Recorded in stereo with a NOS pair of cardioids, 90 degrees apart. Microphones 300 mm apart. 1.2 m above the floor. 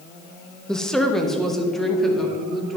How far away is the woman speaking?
About 1.1 m.